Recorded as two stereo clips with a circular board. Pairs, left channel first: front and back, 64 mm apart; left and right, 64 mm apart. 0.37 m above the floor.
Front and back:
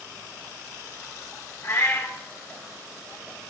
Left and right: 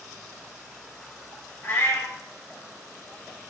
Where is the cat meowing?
35° left, 2.5 m.